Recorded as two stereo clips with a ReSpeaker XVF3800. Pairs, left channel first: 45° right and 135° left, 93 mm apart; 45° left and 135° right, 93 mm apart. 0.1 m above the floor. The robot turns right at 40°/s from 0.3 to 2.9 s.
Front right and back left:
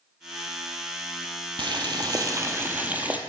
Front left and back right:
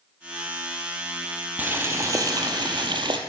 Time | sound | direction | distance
1.6 | boiling | 155° left | 0.6 m